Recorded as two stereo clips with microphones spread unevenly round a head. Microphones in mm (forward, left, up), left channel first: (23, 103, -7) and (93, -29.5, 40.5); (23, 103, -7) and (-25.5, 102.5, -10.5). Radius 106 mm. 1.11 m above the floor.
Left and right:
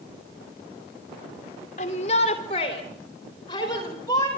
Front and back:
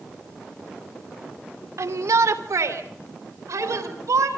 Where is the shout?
175° left, 2.5 m; by 4.3 s 165° right, 4.5 m.